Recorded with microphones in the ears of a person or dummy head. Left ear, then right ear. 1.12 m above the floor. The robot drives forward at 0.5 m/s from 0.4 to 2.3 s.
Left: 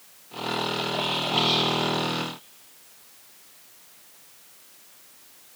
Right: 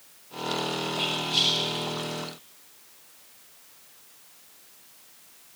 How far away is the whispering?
About 5 m.